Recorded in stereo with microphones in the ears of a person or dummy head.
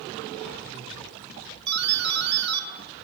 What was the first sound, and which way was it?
A doorbell, 50° right (ahead or behind).